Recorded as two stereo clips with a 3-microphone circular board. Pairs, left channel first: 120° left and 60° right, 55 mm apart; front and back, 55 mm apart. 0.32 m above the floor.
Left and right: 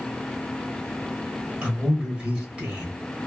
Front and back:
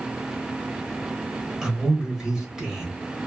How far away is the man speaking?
About 1.2 m.